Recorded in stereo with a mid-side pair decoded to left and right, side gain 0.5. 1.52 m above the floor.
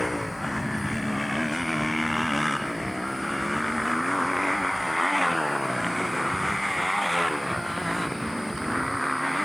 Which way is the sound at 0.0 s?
5° left.